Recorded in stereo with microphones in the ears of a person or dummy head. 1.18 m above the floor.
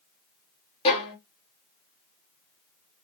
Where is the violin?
35° left (ahead or behind), 0.9 m.